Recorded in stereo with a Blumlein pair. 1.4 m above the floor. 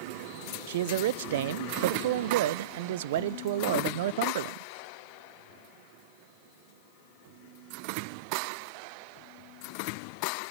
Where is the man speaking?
55° right, 0.6 m.